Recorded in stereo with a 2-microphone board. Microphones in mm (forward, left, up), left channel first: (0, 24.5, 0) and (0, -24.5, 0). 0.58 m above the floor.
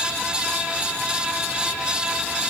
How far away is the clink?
No clink in this recording.